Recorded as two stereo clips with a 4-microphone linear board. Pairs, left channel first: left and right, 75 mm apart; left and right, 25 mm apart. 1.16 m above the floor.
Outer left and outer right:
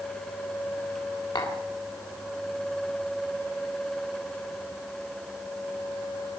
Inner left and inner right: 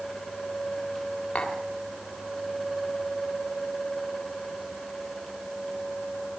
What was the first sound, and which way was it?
Tapping, 75° left (ahead or behind).